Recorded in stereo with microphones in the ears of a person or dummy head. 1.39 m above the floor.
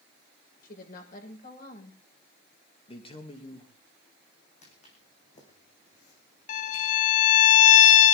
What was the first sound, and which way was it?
A woman speaking, 55° left (ahead or behind).